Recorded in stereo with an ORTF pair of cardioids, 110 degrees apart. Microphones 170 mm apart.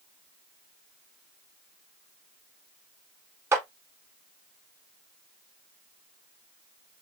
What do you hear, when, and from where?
3.5 s a clap: 15° right, 1.1 m